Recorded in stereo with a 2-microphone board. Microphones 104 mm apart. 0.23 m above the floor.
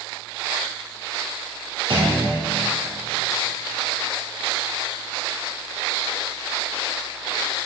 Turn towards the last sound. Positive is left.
turn(degrees=-60)  # may be behind; listen again after turning